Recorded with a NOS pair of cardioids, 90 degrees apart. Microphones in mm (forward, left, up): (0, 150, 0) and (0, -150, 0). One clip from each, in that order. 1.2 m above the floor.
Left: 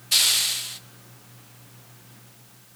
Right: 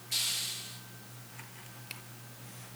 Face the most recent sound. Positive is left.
turn(degrees=65)